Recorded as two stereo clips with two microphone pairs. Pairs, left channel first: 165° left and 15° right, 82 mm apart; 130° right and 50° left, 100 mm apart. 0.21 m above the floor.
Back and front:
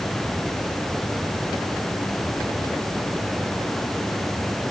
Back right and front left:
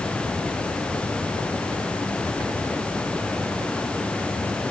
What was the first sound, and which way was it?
Only background noise.